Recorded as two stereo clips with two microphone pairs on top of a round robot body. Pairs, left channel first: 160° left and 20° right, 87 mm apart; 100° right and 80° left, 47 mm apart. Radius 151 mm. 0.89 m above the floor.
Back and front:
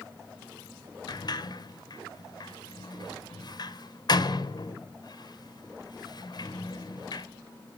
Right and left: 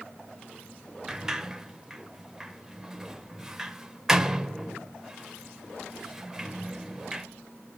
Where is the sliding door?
160° left, 1.0 m.